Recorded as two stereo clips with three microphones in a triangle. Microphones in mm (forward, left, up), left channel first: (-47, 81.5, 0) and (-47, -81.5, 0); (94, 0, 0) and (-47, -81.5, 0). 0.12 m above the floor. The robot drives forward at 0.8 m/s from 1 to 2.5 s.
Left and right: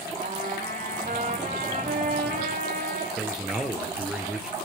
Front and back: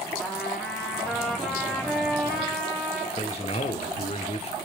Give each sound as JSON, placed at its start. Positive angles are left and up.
{"t": 0.2, "sound": "a trumpet", "azimuth_deg": -50, "distance_m": 7.0}
{"t": 3.2, "sound": "a man speaking", "azimuth_deg": -5, "distance_m": 2.5}